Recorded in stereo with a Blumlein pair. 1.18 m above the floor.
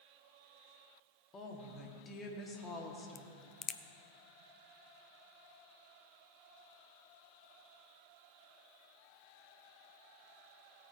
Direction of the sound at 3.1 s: 30° left.